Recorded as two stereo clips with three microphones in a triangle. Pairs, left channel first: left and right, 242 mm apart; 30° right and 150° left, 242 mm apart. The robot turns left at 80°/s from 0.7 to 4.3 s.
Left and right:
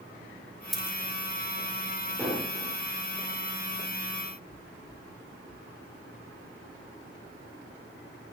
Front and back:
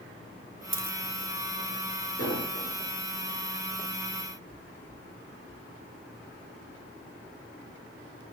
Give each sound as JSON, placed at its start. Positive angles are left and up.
{"t": 0.7, "sound": "a dropped coin", "azimuth_deg": 180, "distance_m": 1.1}
{"t": 2.2, "sound": "an explosion", "azimuth_deg": -10, "distance_m": 7.0}